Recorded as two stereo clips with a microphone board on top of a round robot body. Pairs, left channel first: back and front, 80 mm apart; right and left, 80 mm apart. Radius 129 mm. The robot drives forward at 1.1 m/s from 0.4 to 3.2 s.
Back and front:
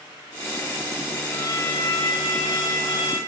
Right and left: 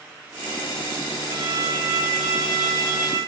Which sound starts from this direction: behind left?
A violin, at 1.3 s.